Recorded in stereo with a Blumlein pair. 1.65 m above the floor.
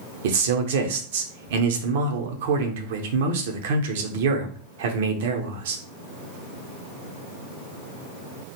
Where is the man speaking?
55° right, 0.8 m.